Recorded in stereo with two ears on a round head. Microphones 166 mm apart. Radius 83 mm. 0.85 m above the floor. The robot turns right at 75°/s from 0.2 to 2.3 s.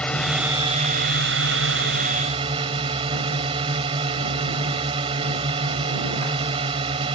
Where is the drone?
175° left; by 7.2 s 30° right.